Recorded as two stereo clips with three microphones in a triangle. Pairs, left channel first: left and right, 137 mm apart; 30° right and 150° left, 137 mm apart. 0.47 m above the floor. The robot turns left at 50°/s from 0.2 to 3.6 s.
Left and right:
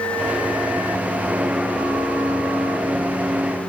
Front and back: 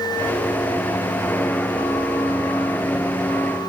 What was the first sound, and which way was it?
Only background noise.